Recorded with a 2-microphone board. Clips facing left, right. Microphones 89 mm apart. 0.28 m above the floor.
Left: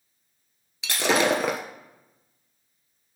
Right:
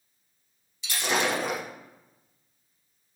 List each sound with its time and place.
0.8 s breaking glass: 85° left, 1.1 m